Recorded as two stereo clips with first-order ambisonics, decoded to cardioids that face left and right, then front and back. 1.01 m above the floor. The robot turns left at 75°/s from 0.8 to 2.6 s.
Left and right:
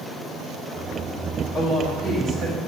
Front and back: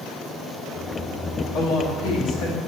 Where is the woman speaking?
35° left, 1.6 m; by 2.6 s 45° right, 1.6 m.